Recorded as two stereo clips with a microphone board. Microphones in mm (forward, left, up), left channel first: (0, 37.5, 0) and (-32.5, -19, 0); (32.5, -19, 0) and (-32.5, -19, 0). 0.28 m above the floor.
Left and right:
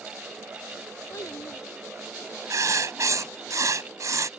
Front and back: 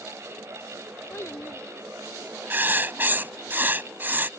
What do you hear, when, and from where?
1.1 s a child speaking: 40° left
2.5 s writing: 130° right